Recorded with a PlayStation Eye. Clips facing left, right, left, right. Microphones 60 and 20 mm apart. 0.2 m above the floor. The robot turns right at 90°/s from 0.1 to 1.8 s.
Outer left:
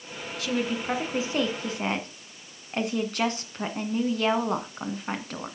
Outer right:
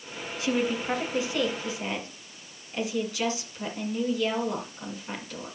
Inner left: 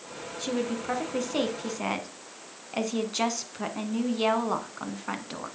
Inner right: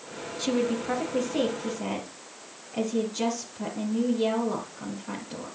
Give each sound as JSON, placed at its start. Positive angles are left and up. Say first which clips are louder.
{"t": 0.4, "sound": "a woman speaking", "louder": "outer right 1 dB, inner right 4 dB", "azimuth_deg": -35, "distance_m": 1.9}